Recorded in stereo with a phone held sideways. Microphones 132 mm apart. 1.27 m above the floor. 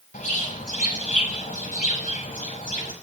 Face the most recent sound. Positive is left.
turn(degrees=80)